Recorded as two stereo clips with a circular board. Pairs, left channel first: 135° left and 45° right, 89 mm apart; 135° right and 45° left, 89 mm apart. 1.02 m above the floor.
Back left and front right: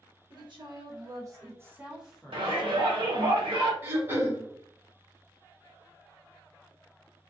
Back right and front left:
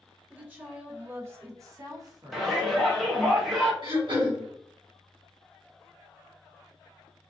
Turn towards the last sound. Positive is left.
turn(degrees=20)